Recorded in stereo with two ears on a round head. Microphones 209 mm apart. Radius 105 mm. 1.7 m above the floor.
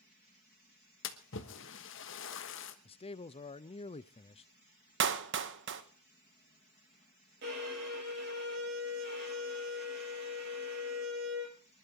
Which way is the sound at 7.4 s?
45° right (ahead or behind).